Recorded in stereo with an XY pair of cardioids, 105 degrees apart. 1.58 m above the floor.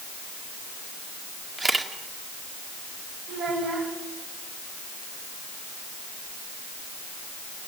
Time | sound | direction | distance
1.6 | a camera shutter | 25° right | 2.0 m
3.3 | a child speaking | 70° right | 8 m